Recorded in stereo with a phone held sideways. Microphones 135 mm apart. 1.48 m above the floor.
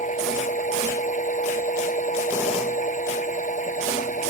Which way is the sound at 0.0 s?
70° left (ahead or behind).